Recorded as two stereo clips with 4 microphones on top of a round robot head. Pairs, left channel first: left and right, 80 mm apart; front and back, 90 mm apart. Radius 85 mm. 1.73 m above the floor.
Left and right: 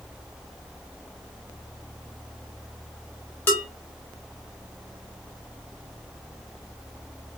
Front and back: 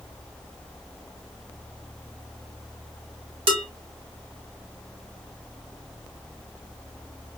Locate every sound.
3.5 s dishes clattering: 165° left, 1.8 m